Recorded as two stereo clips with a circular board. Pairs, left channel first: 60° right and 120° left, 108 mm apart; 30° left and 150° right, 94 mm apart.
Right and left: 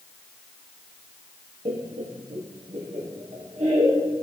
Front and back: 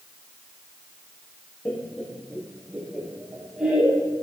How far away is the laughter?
About 0.8 m.